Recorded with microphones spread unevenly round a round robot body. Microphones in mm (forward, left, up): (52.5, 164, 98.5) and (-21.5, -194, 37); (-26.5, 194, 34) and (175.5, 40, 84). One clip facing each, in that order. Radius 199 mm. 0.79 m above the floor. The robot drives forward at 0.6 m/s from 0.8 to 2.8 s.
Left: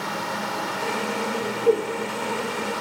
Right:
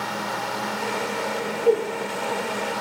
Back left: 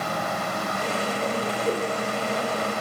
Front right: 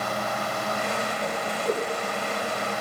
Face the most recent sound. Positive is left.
turn(degrees=155)